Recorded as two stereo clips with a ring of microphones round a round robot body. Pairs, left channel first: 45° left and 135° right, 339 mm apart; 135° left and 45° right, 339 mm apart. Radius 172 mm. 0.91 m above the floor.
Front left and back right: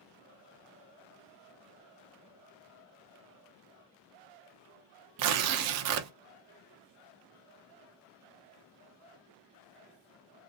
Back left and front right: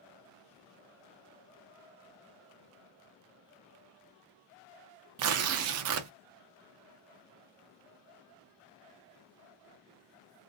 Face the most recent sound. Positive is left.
turn(degrees=-90)